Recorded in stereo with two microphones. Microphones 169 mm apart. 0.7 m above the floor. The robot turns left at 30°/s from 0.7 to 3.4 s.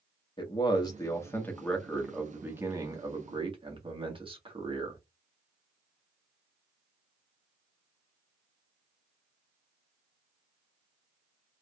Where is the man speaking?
40° left, 1.4 m; by 5.0 s 45° right, 1.4 m.